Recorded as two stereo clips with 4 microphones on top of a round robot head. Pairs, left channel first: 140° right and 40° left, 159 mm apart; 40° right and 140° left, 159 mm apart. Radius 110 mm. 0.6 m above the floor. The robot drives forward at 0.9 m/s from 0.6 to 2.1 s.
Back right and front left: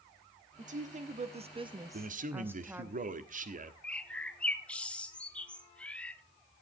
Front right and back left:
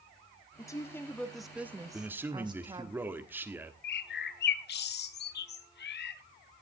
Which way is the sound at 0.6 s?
25° left.